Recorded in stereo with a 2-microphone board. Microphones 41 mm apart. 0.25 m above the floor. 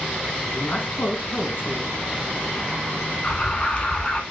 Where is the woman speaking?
55° left (ahead or behind), 2.5 m.